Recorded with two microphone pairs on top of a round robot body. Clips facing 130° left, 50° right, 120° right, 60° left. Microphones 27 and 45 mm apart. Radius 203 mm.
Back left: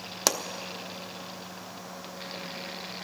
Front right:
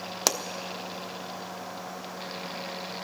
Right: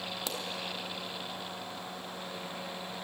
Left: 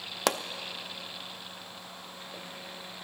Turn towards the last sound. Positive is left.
turn(degrees=40)